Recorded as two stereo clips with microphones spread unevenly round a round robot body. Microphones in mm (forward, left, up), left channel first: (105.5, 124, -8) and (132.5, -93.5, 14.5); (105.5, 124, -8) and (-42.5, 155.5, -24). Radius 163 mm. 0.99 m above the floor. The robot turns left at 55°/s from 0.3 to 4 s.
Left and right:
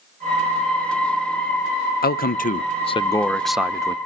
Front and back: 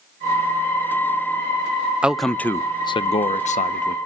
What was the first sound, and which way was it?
A man speaking, 95° left.